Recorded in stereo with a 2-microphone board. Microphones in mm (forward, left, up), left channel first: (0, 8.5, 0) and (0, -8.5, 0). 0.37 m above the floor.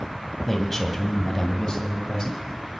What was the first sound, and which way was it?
A man speaking, 10° left (ahead or behind).